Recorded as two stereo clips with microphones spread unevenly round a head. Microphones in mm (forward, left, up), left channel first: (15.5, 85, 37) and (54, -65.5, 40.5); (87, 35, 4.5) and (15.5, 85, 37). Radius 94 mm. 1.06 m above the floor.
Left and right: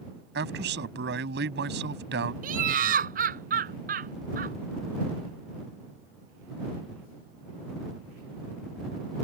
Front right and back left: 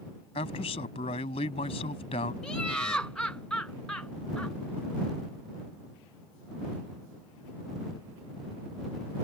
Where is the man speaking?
70° right.